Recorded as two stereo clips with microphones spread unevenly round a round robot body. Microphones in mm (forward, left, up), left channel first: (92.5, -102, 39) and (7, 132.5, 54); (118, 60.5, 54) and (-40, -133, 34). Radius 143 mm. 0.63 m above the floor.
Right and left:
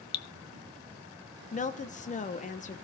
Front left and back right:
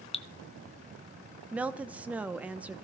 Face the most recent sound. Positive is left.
turn(degrees=-55)